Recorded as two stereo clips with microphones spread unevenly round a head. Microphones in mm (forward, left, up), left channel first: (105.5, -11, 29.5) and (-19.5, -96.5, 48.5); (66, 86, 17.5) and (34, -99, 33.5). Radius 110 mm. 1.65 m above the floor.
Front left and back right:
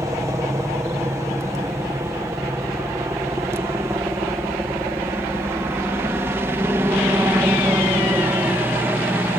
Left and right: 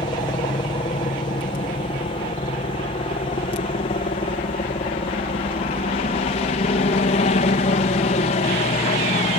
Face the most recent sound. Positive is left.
turn(degrees=135)